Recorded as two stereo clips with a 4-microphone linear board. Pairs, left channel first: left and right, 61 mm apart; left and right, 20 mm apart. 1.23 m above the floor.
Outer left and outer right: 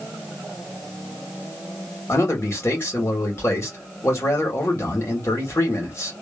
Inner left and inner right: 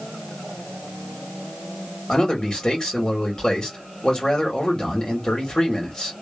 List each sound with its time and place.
2.1 s a man speaking: 45° left (ahead or behind), 1.6 m